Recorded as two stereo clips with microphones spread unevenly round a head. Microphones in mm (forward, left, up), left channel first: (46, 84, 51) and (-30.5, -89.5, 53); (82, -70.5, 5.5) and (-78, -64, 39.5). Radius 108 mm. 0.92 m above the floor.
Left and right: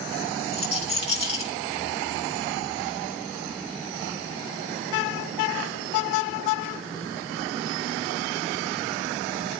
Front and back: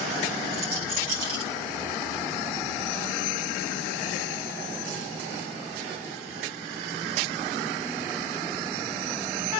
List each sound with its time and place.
0.5 s a rattle: 125° left, 3.5 m